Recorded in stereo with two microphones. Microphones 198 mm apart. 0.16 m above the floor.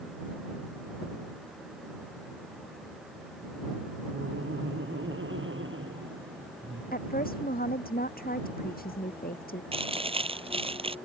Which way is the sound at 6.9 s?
50° left (ahead or behind).